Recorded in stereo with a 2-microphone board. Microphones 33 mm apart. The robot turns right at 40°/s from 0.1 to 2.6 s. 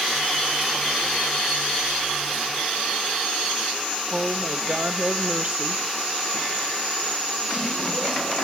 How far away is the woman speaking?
About 1.5 m.